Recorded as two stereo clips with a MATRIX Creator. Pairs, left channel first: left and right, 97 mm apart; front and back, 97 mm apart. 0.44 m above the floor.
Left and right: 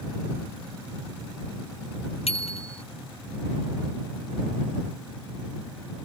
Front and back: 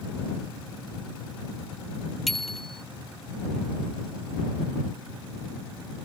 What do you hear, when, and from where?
2.3 s a bicycle bell: 85° left